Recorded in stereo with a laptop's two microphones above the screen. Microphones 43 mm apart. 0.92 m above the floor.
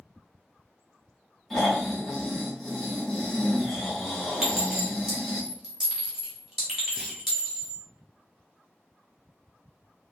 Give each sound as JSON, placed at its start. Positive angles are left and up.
{"t": 1.5, "sound": "snoring", "side_deg": 5, "distance_m": 1.5}
{"t": 4.4, "sound": "a clink", "side_deg": -15, "distance_m": 1.1}
{"t": 7.0, "sound": "a clunk", "side_deg": -15, "distance_m": 1.0}